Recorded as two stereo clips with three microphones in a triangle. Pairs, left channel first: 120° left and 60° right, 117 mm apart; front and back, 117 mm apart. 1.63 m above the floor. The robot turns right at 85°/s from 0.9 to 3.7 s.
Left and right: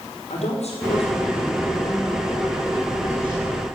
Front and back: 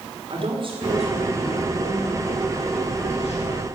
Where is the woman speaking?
145° left, 5 m; by 3.6 s 15° left, 5 m.